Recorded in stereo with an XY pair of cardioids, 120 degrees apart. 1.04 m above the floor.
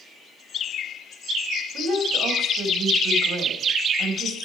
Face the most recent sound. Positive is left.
turn(degrees=-65)